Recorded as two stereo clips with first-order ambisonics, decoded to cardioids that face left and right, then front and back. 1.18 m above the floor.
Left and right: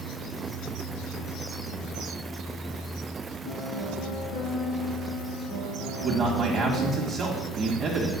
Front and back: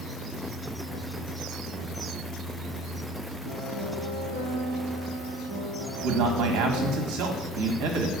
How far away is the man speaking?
About 1.8 m.